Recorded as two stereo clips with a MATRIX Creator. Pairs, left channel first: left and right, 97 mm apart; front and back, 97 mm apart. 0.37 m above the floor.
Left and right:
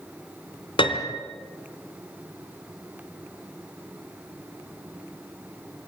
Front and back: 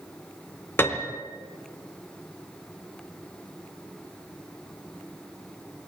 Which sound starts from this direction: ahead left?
A piano, at 0.8 s.